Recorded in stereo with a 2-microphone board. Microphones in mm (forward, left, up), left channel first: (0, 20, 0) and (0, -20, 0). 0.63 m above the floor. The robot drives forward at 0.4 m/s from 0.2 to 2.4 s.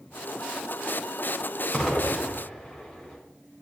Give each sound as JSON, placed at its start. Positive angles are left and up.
{"t": 1.7, "sound": "an explosion", "side_deg": 10, "distance_m": 4.5}